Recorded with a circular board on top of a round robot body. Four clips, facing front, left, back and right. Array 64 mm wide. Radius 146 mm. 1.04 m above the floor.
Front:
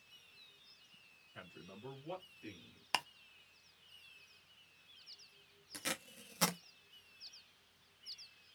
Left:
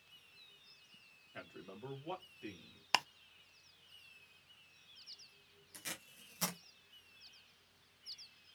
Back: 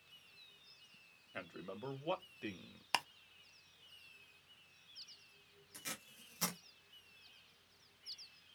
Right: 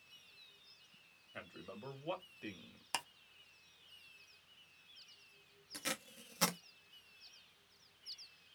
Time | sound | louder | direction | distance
1.3 | a man speaking | right 1 dB, back 6 dB | 170° right | 2.5 m
2.9 | ticking | left 8 dB, even | 90° left | 0.7 m
5.7 | tape being pulled | right 6 dB, front 7 dB | 40° right | 0.8 m